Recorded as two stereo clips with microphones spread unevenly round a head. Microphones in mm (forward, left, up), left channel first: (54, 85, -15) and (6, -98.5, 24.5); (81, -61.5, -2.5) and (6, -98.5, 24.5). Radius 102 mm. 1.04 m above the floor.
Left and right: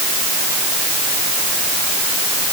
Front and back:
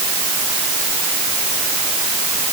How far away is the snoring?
No snoring in this recording.